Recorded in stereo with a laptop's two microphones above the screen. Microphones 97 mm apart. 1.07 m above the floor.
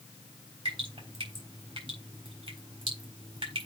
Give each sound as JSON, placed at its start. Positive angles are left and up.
{"t": 0.7, "sound": "dripping", "side_deg": -60, "distance_m": 4.0}